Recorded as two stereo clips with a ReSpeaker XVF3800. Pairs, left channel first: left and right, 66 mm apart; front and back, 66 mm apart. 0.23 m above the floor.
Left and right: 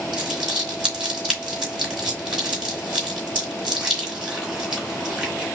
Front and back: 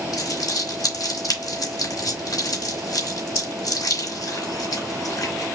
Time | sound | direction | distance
0.1 | crumpling | 10° right | 3 m